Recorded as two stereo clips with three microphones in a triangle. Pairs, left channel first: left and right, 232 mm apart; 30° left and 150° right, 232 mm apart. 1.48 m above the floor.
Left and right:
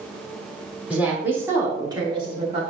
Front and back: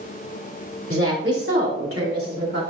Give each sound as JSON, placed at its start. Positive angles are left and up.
{"t": 0.9, "sound": "a woman speaking", "azimuth_deg": -175, "distance_m": 3.5}